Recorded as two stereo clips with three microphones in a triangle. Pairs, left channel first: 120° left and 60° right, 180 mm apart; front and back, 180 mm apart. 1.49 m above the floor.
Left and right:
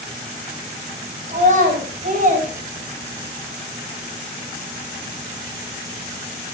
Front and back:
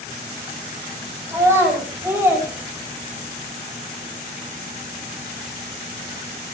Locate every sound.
1.3 s a child speaking: 105° right, 7.5 m; by 3.4 s 95° right, 5.5 m